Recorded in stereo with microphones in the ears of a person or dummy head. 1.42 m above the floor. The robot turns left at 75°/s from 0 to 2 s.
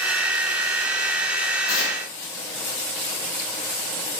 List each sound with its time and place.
1.7 s tearing paper: 50° left (ahead or behind), 0.8 m; by 2.0 s 70° left (ahead or behind), 0.8 m